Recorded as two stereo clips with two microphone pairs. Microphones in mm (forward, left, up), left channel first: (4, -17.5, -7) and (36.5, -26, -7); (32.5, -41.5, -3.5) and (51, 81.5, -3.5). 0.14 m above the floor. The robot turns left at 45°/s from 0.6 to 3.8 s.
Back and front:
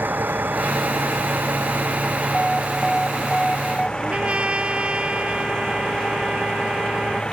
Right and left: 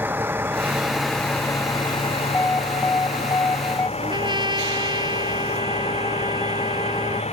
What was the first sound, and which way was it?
A vehicle, 5° left.